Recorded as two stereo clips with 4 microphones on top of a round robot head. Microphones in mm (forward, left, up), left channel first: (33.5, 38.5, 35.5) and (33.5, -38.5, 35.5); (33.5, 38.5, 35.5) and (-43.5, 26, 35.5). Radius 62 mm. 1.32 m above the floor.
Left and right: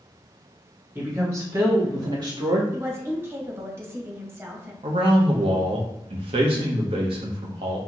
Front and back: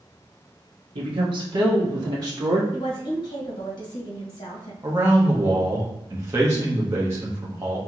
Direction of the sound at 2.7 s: 30° right.